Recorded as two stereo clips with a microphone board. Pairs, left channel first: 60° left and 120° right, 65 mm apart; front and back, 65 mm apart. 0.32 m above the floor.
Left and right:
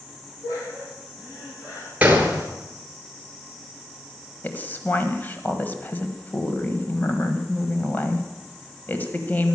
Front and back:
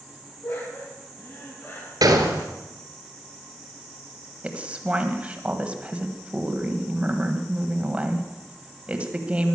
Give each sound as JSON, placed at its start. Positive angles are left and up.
{"t": 0.4, "sound": "laughter", "azimuth_deg": 50, "distance_m": 9.0}
{"t": 2.0, "sound": "a gunshot", "azimuth_deg": 170, "distance_m": 2.0}
{"t": 4.4, "sound": "a woman speaking", "azimuth_deg": 115, "distance_m": 1.5}